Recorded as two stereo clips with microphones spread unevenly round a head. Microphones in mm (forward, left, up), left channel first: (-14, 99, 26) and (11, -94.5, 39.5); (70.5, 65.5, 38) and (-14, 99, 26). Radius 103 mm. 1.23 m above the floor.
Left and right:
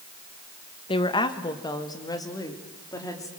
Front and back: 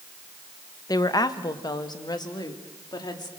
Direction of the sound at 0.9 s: 30° left.